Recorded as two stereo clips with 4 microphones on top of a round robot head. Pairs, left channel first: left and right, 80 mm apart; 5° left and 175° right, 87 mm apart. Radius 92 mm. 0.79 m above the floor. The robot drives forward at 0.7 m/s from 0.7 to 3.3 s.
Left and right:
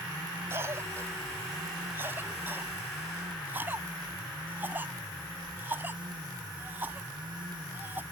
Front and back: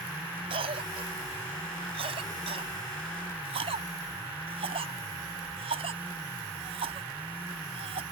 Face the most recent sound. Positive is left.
turn(degrees=-160)